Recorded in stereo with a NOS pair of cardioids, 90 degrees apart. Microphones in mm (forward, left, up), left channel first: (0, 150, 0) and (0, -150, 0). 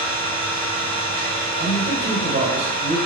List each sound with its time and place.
0.0 s an engine running: 30° right, 1.6 m
1.6 s a man speaking: 40° right, 1.5 m